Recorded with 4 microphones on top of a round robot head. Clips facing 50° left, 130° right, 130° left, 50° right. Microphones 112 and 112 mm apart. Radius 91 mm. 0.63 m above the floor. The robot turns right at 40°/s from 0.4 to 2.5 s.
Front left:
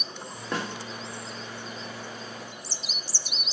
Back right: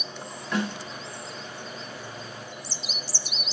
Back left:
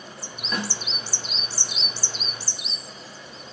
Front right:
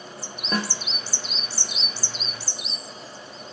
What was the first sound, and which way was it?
A snare drum, 5° right.